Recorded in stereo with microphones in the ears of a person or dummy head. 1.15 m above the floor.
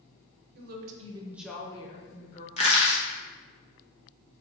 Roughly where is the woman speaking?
Right.